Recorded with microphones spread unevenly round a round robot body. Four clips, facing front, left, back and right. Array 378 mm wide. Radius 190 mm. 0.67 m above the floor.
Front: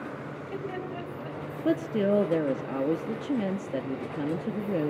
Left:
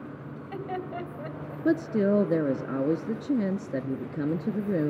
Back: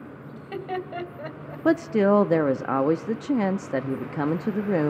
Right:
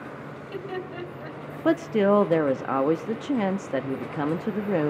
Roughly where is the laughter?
Behind.